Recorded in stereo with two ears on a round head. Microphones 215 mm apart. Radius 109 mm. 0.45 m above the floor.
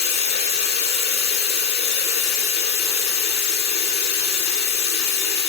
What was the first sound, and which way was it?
Running water, 30° left (ahead or behind).